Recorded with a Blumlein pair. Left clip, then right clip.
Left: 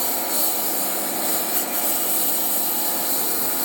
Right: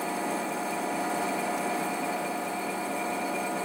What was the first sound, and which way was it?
A lawn mower, 45° left.